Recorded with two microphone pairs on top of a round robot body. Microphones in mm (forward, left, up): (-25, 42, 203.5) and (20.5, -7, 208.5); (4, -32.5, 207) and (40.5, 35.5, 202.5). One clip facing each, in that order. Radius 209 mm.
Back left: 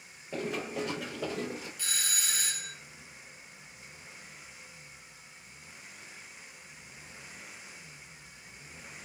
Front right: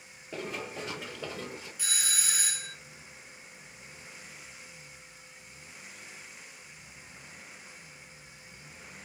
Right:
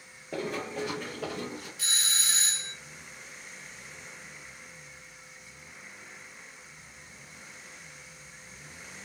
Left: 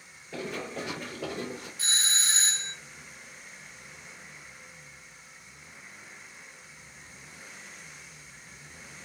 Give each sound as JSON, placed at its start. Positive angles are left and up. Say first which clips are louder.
{"t": 0.3, "sound": "running footsteps", "louder": "back left 3 dB, right 2 dB", "azimuth_deg": -140, "distance_m": 0.8}
{"t": 1.8, "sound": "a doorbell", "louder": "front right 3 dB, left 3 dB", "azimuth_deg": 40, "distance_m": 1.0}